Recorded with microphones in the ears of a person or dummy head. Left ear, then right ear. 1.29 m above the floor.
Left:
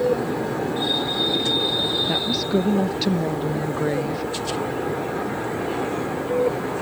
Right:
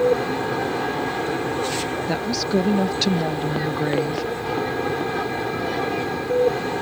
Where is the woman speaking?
15° right (ahead or behind).